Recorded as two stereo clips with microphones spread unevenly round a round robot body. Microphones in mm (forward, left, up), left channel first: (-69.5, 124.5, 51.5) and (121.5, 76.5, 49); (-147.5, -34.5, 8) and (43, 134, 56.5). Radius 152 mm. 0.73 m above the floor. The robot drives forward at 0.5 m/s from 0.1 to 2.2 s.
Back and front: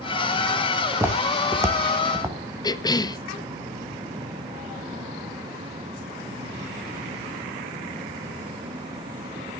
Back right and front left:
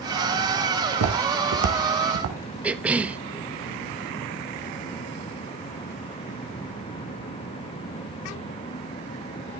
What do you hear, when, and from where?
0.9 s footsteps: 65° left, 2.5 m; by 2.4 s 55° left, 3 m
2.6 s a cough: 150° left, 1.0 m